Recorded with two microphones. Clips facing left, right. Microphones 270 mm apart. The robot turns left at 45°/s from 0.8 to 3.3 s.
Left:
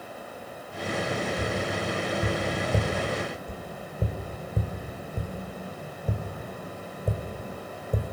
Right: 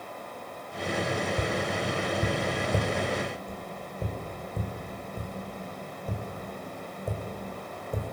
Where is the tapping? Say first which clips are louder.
Even; 65° right (ahead or behind), 7 m; by 8.0 s 15° left (ahead or behind), 7 m.